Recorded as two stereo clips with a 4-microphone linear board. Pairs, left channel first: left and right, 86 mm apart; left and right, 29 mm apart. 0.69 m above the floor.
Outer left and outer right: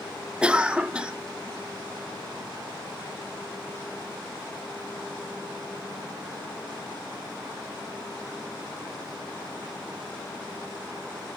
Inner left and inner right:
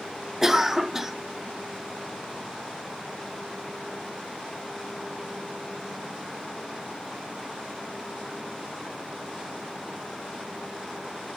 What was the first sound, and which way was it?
A cough, 10° right (ahead or behind).